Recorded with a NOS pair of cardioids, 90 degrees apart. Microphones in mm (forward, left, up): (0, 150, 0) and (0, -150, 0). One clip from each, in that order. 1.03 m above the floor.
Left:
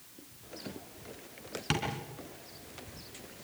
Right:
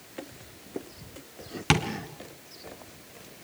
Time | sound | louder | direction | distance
1.7 | tapping | right 8 dB | 55° right | 3 m